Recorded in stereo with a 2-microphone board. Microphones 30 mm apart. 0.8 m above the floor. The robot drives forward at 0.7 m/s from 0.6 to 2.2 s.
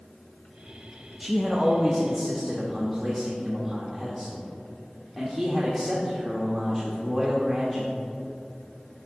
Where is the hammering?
I don't hear hammering.